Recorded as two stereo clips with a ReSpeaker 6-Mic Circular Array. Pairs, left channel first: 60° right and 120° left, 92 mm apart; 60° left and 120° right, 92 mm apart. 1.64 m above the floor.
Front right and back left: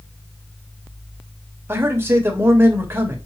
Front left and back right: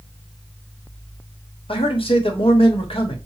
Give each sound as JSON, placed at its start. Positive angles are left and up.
{"t": 1.7, "sound": "a man speaking", "azimuth_deg": 55, "distance_m": 1.1}